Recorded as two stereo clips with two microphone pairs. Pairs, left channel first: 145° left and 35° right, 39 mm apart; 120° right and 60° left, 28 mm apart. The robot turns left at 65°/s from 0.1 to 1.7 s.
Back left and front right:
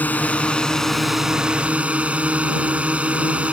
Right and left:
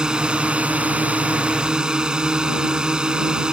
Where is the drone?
115° left; by 3.5 s 10° left.